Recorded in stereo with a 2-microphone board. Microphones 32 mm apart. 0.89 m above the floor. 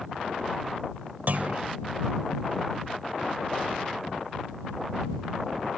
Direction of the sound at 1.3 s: 60° right (ahead or behind).